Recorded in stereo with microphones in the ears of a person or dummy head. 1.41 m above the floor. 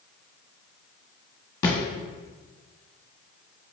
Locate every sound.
1.6 s a thud: 25° left (ahead or behind), 1.2 m